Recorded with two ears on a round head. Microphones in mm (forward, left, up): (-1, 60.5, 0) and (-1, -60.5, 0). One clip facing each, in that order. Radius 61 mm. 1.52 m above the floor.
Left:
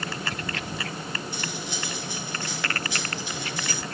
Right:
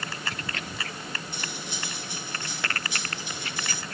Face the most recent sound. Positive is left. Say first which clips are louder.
# left 4 dB
turn(degrees=65)  # may be behind; listen again after turning